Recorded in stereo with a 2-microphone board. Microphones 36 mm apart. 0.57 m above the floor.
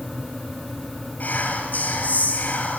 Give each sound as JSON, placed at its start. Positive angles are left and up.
{"t": 1.2, "sound": "whispering", "side_deg": 50, "distance_m": 3.0}